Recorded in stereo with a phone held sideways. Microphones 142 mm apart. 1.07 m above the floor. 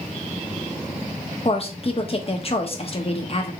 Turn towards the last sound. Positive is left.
turn(degrees=40)  # may be behind; listen again after turning